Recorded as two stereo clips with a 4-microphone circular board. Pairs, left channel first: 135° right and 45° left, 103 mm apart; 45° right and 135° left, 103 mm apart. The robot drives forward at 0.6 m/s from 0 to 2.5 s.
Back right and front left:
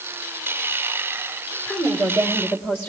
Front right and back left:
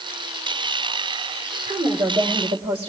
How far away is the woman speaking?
About 1.7 m.